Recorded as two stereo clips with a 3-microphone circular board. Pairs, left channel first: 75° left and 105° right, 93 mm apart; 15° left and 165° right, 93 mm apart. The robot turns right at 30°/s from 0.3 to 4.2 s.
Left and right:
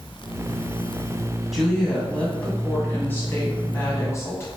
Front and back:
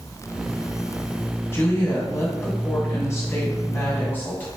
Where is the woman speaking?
20° right, 1.6 m; by 4.5 s 60° left, 1.6 m.